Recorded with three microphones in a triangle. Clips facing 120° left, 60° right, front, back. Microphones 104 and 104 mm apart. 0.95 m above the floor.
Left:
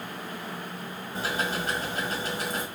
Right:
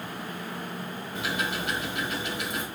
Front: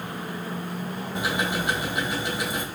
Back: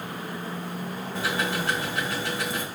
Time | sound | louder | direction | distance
1.1 | ticking | left 1 dB, front 1 dB | 75° left | 1.5 m